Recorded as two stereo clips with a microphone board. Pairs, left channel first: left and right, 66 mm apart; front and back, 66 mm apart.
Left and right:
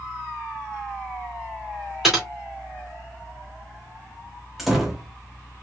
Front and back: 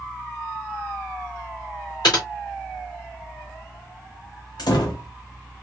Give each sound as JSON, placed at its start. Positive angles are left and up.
{"t": 2.0, "sound": "typing on a keyboard", "azimuth_deg": -5, "distance_m": 2.5}
{"t": 4.6, "sound": "a door slam", "azimuth_deg": 0, "distance_m": 1.1}